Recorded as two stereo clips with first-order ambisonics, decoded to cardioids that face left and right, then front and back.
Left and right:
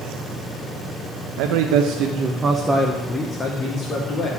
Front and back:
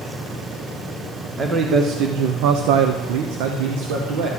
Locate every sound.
1.4 s a man speaking: 105° right, 1.0 m; by 4.3 s 150° left, 1.7 m